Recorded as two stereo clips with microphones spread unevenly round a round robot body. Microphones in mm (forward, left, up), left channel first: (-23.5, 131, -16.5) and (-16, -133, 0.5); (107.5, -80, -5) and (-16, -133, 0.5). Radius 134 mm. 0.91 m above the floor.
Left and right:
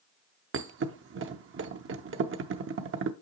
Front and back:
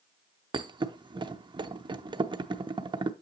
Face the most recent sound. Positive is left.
turn(degrees=-110)